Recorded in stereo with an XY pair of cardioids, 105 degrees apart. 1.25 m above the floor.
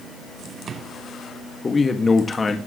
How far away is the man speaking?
About 1.6 m.